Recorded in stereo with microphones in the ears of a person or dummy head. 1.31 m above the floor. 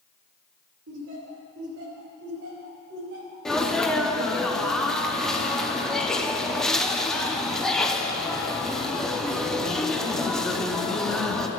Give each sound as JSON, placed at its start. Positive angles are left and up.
{"t": 0.9, "sound": "laughter", "side_deg": -70, "distance_m": 1.8}
{"t": 3.5, "sound": "a sneeze", "side_deg": 5, "distance_m": 0.6}